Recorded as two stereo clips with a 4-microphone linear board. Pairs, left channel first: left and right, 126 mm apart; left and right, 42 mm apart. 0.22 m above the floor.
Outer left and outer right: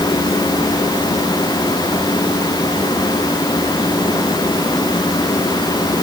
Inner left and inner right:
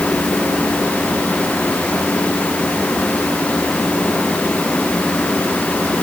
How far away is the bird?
No bird in this recording.